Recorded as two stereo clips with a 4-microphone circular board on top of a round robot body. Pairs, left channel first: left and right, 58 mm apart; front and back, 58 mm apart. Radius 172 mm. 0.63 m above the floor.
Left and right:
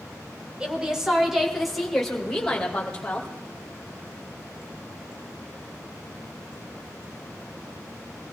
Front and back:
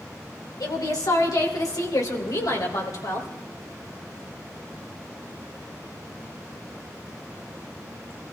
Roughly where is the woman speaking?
Ahead.